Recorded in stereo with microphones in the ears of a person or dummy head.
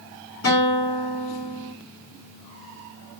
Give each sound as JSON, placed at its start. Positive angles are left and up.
{"t": 0.4, "sound": "a guitar", "side_deg": 70, "distance_m": 1.9}